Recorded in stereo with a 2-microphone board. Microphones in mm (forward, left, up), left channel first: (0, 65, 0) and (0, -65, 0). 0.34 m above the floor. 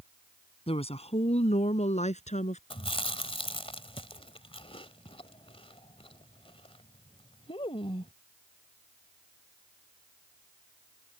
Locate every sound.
0.7 s a woman speaking: 50° left (ahead or behind); by 2.6 s 65° left (ahead or behind)
2.7 s chewing: 45° left (ahead or behind)